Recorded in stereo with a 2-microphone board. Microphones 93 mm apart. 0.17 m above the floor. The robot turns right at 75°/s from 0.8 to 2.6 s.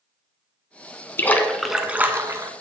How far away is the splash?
About 0.9 m.